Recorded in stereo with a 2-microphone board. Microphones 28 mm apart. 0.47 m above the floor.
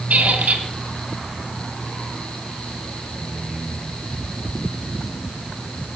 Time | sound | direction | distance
0.1 | a squeak | 75° right (ahead or behind) | 2.5 m